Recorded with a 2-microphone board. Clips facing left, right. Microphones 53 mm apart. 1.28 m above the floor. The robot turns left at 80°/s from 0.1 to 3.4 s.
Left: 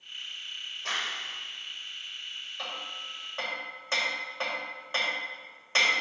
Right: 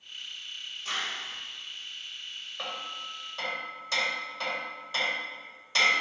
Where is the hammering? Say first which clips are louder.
Right 2 dB; 25° right (ahead or behind), 2 m; by 6.0 s 35° left (ahead or behind), 2 m.